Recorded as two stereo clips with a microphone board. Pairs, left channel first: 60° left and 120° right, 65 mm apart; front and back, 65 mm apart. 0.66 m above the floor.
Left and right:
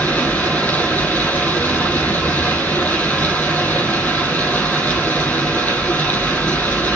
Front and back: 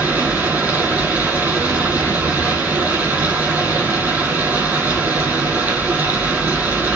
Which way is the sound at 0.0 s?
125° left.